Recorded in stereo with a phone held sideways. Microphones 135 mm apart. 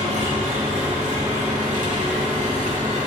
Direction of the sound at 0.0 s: 70° right (ahead or behind).